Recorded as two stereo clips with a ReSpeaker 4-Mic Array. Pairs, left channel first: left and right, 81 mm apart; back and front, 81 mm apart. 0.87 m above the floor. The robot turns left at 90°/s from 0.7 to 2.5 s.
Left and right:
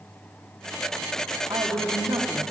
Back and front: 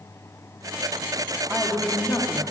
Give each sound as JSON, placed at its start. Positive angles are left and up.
{"t": 1.5, "sound": "a woman speaking", "azimuth_deg": -60, "distance_m": 1.6}